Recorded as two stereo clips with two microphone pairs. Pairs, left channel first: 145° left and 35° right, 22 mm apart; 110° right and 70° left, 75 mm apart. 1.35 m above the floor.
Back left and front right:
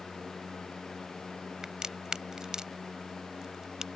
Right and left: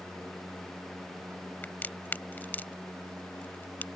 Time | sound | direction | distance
1.6 | a crack | 70° right | ?